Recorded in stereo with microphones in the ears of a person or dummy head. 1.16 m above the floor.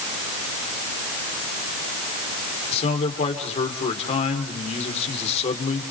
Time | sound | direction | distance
2.7 | a man speaking | 35° left (ahead or behind) | 3.5 m